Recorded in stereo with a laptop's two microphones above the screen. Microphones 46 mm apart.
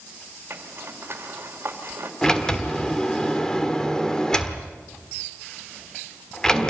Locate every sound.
0.5 s a zipper: 50° right (ahead or behind), 2.5 m
2.2 s a sliding door: 15° left (ahead or behind), 1.4 m